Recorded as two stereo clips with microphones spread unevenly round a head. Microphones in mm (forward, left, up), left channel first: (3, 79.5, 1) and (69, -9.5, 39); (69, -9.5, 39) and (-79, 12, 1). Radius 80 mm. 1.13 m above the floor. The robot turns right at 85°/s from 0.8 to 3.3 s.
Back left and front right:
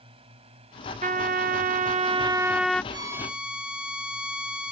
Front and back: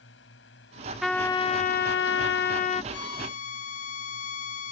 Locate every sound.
0.0 s a drone: 15° right; by 4.7 s 170° left
1.0 s a trumpet: 105° right; by 2.8 s 50° left
2.9 s a violin: straight ahead; by 4.7 s 35° left